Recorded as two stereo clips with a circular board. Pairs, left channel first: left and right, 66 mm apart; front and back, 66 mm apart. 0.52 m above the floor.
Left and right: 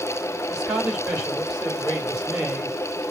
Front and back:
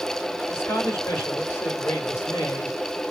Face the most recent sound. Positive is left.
turn(degrees=-20)